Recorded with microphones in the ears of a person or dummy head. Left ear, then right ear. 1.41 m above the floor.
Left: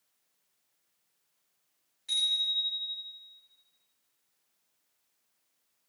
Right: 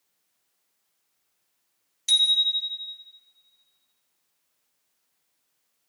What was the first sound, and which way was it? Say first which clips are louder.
A bicycle bell: right 8 dB; 75° right (ahead or behind).